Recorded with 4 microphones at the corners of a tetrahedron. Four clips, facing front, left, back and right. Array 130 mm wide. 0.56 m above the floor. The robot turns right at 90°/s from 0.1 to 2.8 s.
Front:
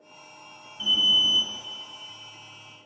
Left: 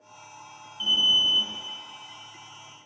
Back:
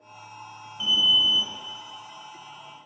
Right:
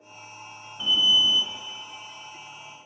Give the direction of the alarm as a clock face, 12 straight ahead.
4 o'clock.